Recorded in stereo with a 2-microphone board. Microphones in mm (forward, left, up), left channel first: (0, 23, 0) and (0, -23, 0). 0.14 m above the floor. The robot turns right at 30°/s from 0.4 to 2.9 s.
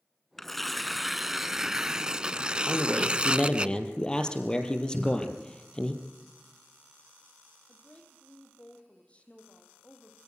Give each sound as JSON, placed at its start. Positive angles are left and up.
{"t": 0.4, "sound": "tearing paper", "side_deg": 5, "distance_m": 0.5}
{"t": 2.7, "sound": "a man speaking", "side_deg": 10, "distance_m": 3.0}
{"t": 4.9, "sound": "a cupboard door", "side_deg": 10, "distance_m": 3.0}
{"t": 7.7, "sound": "a woman speaking", "side_deg": 25, "distance_m": 4.5}